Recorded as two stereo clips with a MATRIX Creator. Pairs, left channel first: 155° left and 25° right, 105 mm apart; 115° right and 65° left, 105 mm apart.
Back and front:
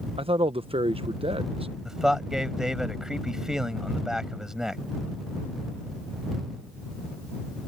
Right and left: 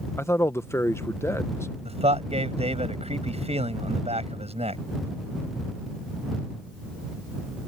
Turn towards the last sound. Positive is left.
turn(degrees=65)